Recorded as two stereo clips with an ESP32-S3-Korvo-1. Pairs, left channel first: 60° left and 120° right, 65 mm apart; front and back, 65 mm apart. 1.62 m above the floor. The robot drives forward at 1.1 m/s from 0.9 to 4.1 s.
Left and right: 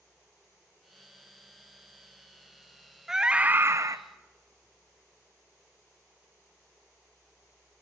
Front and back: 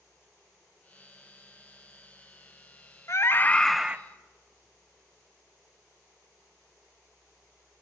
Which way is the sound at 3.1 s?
40° right.